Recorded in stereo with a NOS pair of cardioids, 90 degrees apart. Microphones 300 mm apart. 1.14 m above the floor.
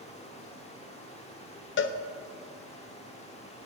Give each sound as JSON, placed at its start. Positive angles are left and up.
{"t": 0.0, "sound": "running water", "azimuth_deg": 20, "distance_m": 1.7}
{"t": 1.8, "sound": "a cowbell", "azimuth_deg": 40, "distance_m": 0.6}